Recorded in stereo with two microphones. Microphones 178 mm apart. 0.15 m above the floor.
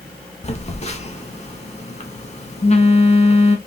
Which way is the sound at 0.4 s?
40° left (ahead or behind).